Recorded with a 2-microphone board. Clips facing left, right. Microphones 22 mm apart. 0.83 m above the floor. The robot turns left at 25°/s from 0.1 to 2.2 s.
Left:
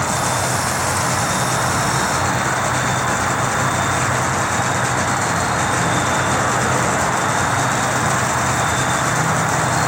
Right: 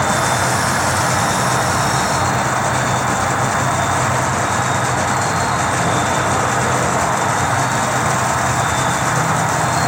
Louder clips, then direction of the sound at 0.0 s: Right 3 dB; 140° right.